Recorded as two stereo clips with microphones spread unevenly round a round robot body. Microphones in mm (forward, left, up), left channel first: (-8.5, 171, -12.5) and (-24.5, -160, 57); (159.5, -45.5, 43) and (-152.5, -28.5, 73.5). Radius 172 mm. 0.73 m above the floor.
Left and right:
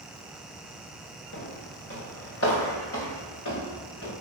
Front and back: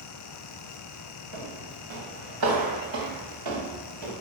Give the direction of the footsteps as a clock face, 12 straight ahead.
7 o'clock.